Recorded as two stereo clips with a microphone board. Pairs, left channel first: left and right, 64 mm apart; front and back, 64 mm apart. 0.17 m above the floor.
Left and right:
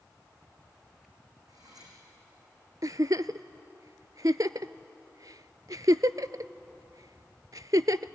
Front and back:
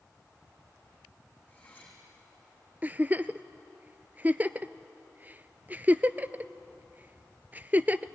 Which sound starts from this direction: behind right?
A giggle, at 2.8 s.